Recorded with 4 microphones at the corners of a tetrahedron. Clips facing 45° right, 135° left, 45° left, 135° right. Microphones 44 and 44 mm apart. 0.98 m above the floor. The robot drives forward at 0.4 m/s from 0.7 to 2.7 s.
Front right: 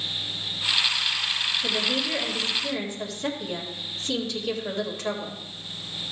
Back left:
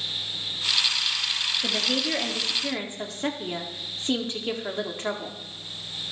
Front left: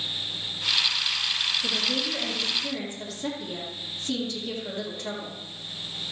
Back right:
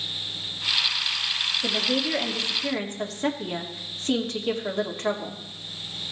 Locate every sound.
1.6 s a woman speaking: 170° right, 1.5 m